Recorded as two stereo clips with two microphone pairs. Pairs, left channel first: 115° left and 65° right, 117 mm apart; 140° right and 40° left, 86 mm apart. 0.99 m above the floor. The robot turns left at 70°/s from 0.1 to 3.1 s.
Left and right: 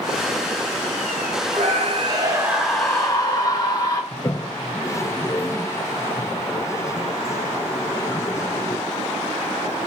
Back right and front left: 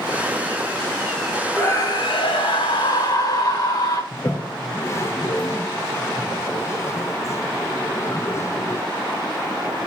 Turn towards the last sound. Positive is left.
turn(degrees=180)